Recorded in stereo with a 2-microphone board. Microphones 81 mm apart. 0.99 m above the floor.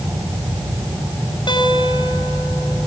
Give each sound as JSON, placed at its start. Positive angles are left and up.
{"t": 1.5, "sound": "a guitar", "side_deg": 75, "distance_m": 7.0}